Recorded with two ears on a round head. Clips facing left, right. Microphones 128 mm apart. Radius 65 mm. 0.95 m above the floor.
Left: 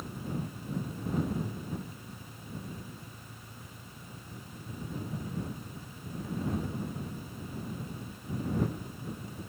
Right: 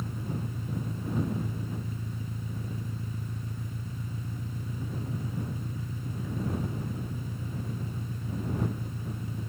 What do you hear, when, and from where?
0.0 s an engine running: 70° right (ahead or behind)